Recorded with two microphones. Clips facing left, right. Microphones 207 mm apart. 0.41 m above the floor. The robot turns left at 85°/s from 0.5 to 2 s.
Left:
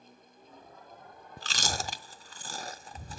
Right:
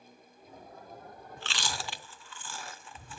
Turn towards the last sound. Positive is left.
turn(degrees=40)  # may be behind; listen again after turning